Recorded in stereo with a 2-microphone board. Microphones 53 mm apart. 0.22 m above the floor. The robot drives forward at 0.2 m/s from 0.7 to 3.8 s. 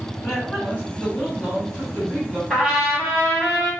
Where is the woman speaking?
5° left (ahead or behind), 1.6 m.